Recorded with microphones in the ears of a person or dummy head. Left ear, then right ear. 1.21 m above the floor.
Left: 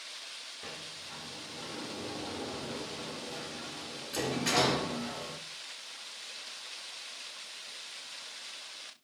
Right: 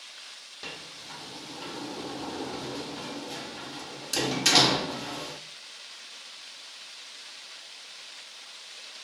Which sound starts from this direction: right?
A sliding door, at 0.6 s.